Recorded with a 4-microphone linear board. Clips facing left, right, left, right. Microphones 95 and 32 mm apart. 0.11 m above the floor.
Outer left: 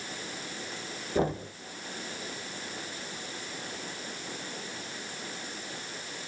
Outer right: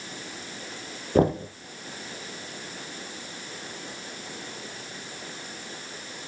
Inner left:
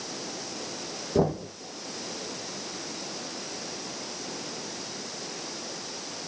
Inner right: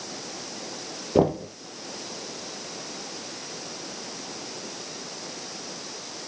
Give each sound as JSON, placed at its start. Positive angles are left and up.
{"t": 1.1, "sound": "knocking", "side_deg": -55, "distance_m": 2.0}